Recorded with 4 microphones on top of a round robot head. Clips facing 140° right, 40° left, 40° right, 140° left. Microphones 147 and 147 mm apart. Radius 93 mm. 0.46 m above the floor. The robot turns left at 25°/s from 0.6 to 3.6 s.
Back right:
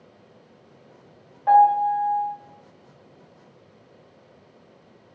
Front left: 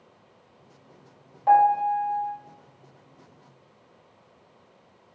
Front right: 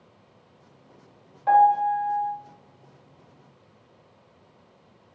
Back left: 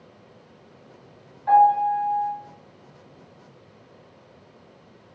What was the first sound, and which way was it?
A piano, 45° right.